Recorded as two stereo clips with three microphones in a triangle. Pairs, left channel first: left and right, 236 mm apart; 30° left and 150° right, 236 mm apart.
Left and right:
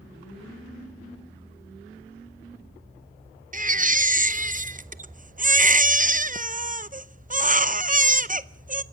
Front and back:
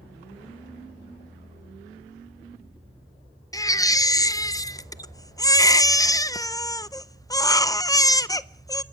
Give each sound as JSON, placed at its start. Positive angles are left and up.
{"t": 3.5, "sound": "a baby crying", "azimuth_deg": -45, "distance_m": 0.6}